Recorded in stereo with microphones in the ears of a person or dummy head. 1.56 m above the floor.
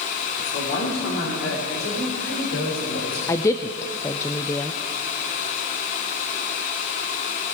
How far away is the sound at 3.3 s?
About 0.6 m.